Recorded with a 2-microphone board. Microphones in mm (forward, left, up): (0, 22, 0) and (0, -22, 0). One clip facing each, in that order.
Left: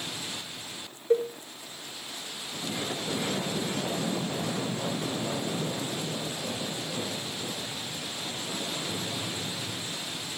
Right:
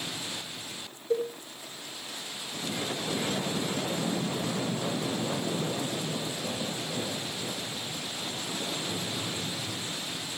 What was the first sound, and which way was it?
A cowbell, 35° left (ahead or behind).